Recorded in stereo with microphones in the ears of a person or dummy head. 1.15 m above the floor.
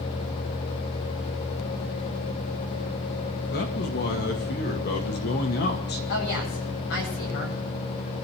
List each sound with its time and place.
3.5 s a man speaking: 50° left (ahead or behind), 1.9 m
6.1 s a woman speaking: 60° left (ahead or behind), 7 m